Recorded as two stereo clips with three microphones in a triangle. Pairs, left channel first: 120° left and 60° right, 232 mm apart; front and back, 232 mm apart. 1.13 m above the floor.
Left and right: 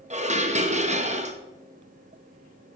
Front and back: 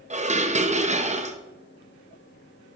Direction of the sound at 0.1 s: 115° right.